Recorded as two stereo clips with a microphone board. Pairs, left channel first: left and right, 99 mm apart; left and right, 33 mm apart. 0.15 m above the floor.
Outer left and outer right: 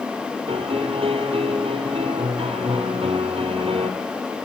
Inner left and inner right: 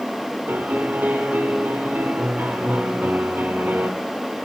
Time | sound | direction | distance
0.5 | a piano | 70° right (ahead or behind) | 4 m